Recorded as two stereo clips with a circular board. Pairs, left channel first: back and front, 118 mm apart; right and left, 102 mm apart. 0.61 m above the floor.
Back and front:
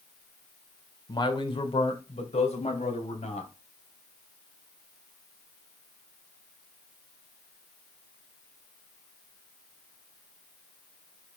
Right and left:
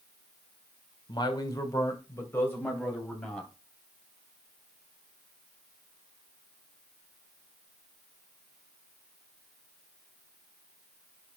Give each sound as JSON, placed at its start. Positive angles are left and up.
{"t": 1.1, "sound": "a man speaking", "azimuth_deg": -130, "distance_m": 1.7}